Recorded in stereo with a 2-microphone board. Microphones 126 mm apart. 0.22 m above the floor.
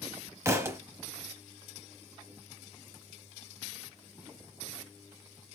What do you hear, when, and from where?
0.5 s a thud: 20° right (ahead or behind), 0.6 m